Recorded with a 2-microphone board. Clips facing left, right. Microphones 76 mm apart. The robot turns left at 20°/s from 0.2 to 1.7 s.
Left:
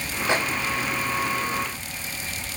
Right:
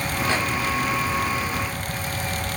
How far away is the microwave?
About 3 m.